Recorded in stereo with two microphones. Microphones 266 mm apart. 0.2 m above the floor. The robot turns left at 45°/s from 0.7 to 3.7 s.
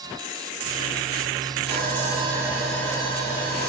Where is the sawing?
135° right, 3 m; by 3.7 s 135° left, 3 m.